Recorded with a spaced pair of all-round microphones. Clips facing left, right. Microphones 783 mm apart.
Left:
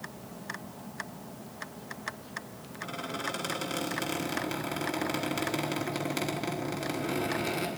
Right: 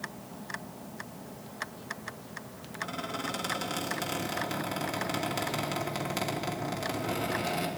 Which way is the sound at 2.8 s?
30° right (ahead or behind).